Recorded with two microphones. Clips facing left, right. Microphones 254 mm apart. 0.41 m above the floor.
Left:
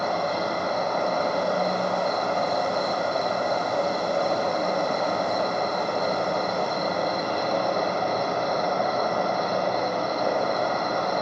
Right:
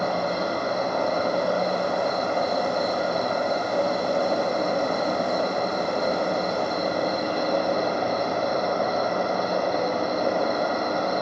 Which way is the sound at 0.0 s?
25° right (ahead or behind).